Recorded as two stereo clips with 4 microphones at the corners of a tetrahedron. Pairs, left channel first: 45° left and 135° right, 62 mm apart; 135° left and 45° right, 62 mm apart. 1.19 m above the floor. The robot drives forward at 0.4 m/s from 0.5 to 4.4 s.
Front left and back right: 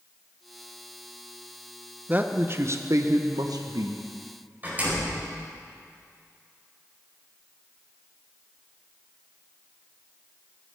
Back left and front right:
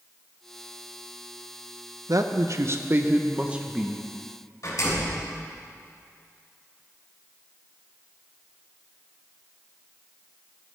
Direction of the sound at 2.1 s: 70° right.